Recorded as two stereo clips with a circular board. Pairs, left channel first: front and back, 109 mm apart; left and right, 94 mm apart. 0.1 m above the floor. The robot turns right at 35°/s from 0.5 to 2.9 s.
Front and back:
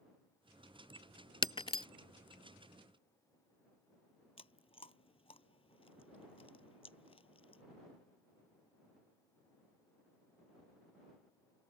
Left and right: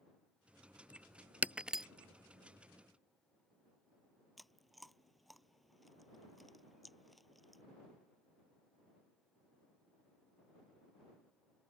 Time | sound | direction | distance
1.4 | breaking glass | 20° right | ?
4.4 | chewing | straight ahead | ?